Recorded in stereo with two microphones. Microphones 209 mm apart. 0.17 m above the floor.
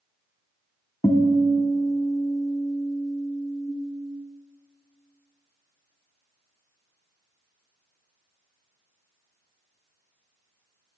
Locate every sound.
1.0 s a guitar: 15° left (ahead or behind), 0.6 m